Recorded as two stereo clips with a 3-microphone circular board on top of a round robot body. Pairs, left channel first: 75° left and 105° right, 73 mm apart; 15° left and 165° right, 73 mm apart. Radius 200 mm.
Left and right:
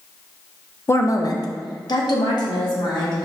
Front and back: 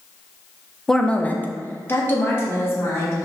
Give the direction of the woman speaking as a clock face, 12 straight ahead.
9 o'clock.